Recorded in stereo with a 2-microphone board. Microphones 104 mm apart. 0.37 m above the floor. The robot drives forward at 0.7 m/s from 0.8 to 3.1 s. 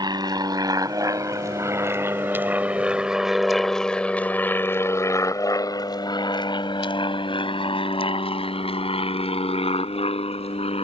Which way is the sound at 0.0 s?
40° right (ahead or behind).